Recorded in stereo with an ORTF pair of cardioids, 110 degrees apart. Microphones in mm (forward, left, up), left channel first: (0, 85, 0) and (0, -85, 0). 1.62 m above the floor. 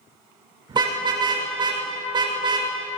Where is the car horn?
25° right, 3.5 m.